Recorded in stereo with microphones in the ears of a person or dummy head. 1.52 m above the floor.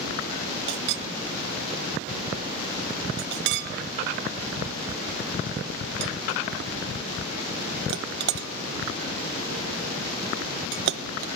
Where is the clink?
65° right (ahead or behind), 0.9 m.